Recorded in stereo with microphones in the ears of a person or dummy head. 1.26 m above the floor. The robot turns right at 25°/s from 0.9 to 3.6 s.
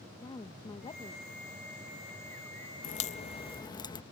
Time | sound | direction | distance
0.2 | a woman speaking | 25° left (ahead or behind) | ?
2.8 | a crack | 45° left (ahead or behind) | ?